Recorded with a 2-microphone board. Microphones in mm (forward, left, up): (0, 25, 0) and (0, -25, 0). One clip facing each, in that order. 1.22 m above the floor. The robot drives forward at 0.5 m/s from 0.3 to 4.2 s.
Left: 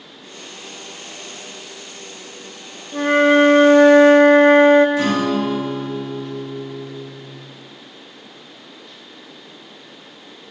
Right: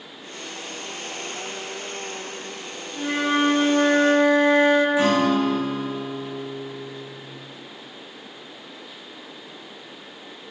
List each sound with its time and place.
2.9 s a flute: 40° left (ahead or behind), 0.6 m; by 4.9 s 45° left (ahead or behind), 0.6 m
5.0 s a guitar: 15° right (ahead or behind), 3 m